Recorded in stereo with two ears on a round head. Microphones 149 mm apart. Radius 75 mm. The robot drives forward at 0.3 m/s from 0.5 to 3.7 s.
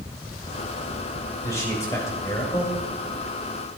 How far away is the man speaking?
About 4 m.